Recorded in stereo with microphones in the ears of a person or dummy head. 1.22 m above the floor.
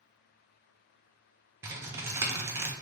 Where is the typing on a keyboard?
15° right (ahead or behind), 0.6 m.